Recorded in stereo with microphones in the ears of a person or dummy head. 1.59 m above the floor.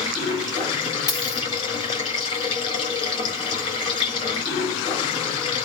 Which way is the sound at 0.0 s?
25° left (ahead or behind).